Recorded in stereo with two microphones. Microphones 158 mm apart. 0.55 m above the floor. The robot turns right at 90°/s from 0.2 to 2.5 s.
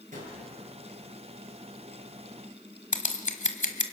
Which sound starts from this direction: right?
A gunshot, at 0.1 s.